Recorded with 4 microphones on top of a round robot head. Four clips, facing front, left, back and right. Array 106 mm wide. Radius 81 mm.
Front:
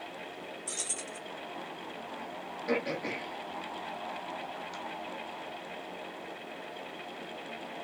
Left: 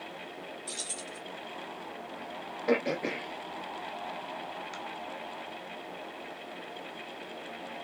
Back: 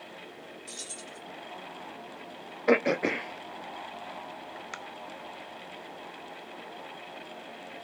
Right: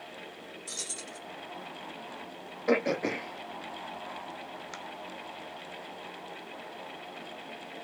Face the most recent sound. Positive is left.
turn(degrees=-175)